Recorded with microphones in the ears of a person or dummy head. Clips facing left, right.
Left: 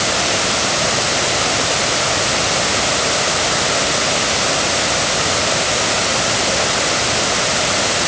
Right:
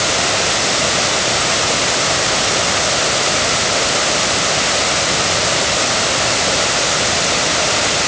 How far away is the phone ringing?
I don't hear a phone ringing.